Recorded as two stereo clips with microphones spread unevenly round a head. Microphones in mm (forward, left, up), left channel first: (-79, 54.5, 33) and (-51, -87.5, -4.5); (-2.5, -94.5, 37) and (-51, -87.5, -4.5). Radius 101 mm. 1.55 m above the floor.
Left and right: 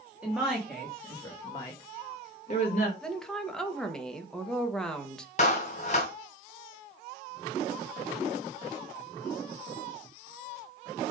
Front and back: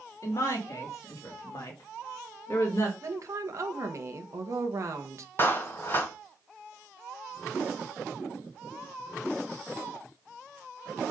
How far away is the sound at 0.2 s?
About 2.5 m.